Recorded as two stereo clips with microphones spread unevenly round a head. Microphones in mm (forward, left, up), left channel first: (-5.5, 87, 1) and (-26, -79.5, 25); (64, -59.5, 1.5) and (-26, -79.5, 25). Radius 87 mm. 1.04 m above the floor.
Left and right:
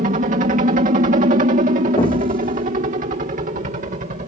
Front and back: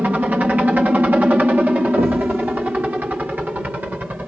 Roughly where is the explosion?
Behind left.